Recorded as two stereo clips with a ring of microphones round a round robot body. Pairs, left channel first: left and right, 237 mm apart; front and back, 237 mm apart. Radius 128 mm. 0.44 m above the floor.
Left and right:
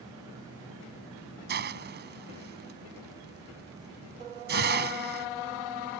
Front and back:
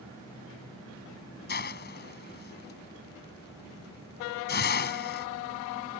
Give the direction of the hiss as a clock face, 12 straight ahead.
2 o'clock.